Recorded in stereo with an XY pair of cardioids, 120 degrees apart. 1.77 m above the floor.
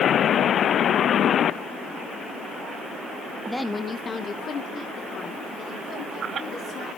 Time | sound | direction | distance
3.5 | a woman speaking | 10° right | 0.6 m